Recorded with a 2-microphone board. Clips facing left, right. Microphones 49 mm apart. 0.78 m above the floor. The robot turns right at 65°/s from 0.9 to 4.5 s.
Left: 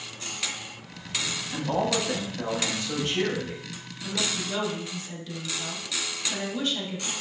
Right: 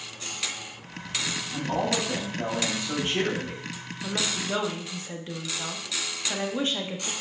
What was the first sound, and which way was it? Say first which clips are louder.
A man speaking: left 1 dB; 120° left.